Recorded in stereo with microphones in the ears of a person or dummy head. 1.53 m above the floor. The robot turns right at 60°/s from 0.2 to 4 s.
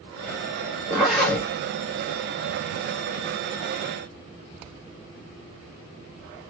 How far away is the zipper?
About 2.5 m.